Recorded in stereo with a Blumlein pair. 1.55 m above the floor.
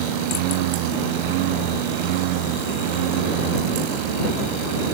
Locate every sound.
0.0 s a lawn mower: 45° right